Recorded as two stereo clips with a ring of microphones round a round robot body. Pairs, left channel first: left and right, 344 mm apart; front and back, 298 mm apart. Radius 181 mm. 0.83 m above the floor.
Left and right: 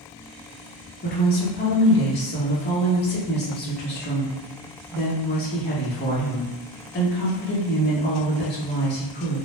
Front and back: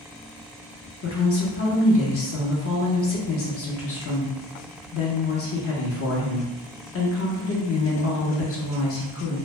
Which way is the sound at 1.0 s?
35° left.